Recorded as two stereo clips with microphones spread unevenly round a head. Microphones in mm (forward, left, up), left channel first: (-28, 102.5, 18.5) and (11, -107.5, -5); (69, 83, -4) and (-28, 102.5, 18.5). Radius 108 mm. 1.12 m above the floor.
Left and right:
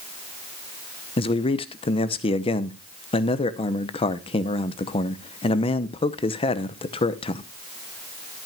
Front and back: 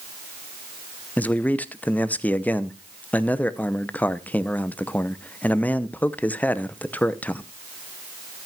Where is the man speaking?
40° left, 0.8 m.